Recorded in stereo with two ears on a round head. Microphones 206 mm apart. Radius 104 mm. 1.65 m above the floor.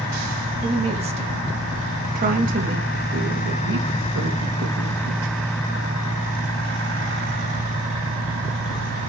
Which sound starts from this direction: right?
A woman speaking, at 0.6 s.